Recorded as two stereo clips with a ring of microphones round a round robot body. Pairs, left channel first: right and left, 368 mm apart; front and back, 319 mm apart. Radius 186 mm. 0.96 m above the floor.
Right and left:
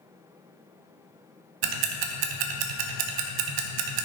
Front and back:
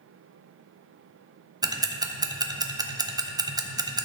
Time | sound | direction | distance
1.6 | ticking | 100° left | 0.9 m